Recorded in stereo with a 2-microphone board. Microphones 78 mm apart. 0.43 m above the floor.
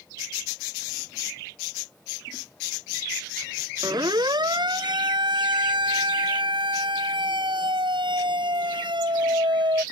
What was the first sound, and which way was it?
A siren, 60° right (ahead or behind).